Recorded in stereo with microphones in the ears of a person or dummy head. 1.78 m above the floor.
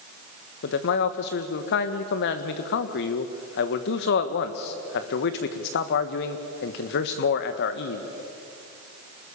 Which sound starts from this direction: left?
A man speaking, at 0.6 s.